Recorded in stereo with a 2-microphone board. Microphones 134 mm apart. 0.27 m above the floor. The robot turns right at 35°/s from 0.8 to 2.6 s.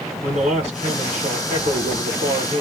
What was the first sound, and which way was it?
A man speaking, 120° right.